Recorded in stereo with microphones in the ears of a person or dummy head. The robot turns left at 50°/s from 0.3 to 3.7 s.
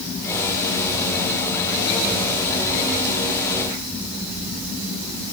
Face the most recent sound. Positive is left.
No sound to turn to.